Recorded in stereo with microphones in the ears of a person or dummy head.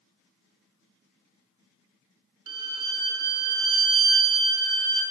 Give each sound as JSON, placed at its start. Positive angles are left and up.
{"t": 2.5, "sound": "a violin", "side_deg": -25, "distance_m": 0.8}